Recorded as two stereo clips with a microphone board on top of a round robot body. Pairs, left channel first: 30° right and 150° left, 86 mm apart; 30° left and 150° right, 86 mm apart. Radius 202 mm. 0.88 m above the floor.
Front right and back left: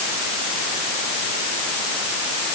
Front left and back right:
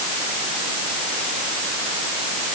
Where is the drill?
I don't hear a drill.